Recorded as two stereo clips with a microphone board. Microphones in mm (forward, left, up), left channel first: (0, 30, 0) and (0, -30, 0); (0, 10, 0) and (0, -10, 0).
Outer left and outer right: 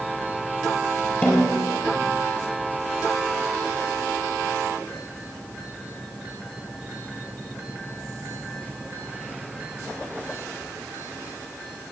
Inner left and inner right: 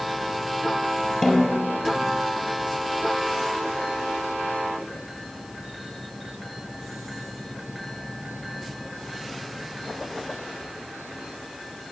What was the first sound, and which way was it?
A snare drum, 25° left (ahead or behind).